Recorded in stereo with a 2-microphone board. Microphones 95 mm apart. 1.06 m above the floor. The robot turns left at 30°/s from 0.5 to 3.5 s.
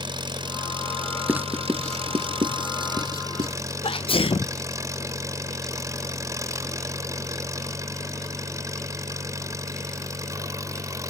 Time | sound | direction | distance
0.0 | an engine running | 55° right | ?
1.3 | writing | 15° right (ahead or behind) | ?
3.8 | a sneeze | 65° left (ahead or behind) | ?